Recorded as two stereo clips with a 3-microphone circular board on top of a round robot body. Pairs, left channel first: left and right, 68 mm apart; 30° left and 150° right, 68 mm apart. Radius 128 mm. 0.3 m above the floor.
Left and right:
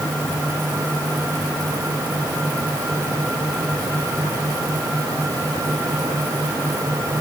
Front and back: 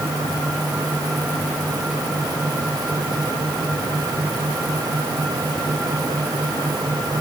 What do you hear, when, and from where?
Only background noise.